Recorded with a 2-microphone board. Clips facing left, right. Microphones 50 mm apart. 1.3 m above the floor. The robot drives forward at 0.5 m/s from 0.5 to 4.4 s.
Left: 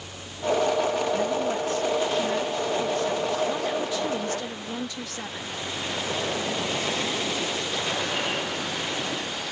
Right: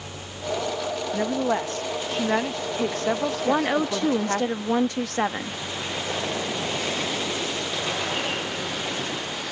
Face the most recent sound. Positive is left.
turn(degrees=-55)  # may be behind; listen again after turning